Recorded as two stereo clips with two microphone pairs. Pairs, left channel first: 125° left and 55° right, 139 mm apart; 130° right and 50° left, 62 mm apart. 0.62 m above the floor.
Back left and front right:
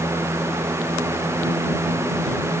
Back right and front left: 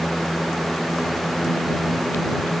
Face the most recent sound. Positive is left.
No sound to turn to.